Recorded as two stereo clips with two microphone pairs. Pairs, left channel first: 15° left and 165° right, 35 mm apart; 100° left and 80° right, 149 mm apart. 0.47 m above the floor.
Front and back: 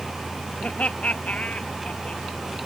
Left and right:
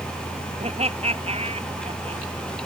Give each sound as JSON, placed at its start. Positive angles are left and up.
{"t": 0.6, "sound": "laughter", "azimuth_deg": -35}